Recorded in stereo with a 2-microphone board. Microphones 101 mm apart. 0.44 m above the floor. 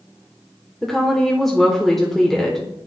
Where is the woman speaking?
5° left (ahead or behind), 1.0 m.